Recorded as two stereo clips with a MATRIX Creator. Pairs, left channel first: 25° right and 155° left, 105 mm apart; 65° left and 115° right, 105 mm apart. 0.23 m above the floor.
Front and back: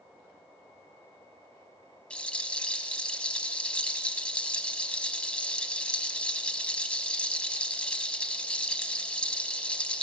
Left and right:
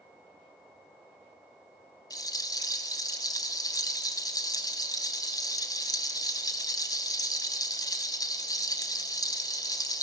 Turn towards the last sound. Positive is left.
turn(degrees=50)